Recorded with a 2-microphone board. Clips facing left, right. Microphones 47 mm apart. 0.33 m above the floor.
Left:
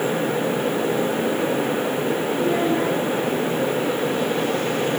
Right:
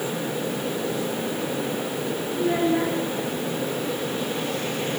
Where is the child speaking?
10° right (ahead or behind), 3 m.